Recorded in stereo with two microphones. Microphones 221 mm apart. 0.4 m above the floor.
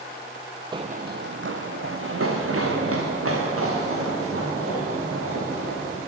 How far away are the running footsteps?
About 0.6 m.